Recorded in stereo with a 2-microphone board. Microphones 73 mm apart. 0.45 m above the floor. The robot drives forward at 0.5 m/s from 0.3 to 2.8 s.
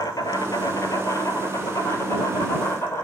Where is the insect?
60° left (ahead or behind), 1.5 m; by 3.0 s 35° left (ahead or behind), 2.5 m.